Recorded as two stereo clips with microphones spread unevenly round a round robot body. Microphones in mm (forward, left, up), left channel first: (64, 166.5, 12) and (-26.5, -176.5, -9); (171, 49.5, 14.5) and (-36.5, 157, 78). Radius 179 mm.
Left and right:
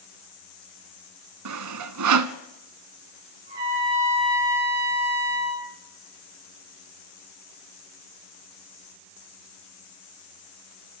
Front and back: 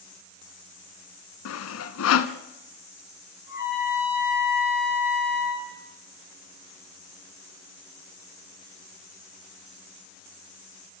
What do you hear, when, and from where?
1.4 s sawing: 60° right, 0.9 m
3.5 s a trumpet: 120° right, 4 m